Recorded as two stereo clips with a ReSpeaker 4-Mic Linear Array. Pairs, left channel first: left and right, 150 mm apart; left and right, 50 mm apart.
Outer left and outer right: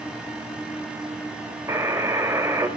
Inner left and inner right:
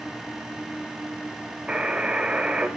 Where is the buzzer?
20° right (ahead or behind), 1.0 m.